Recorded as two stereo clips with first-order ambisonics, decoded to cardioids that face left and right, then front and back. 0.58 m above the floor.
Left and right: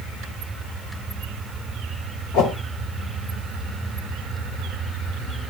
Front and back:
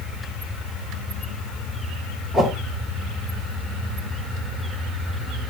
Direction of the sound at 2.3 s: 75° left.